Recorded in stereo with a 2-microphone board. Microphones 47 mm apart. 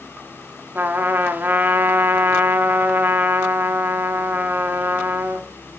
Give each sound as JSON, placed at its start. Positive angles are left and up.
{"t": 0.8, "sound": "a trumpet", "side_deg": -45, "distance_m": 1.1}